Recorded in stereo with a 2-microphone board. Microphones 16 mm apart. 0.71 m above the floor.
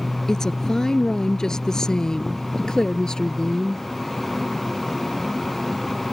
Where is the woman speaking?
35° left (ahead or behind); by 3.8 s 45° left (ahead or behind).